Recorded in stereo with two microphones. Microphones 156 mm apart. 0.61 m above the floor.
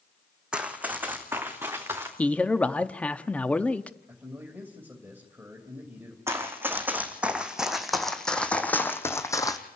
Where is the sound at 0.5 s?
5° right (ahead or behind), 1.9 m; by 2.1 s 15° right (ahead or behind), 4 m.